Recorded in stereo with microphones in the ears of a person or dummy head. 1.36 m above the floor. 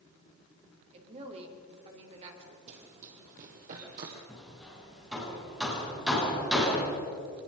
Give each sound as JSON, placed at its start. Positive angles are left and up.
{"t": 0.9, "sound": "a woman speaking", "side_deg": -35, "distance_m": 3.5}
{"t": 2.7, "sound": "running footsteps", "side_deg": -35, "distance_m": 3.5}
{"t": 4.3, "sound": "hammering", "side_deg": -5, "distance_m": 7.0}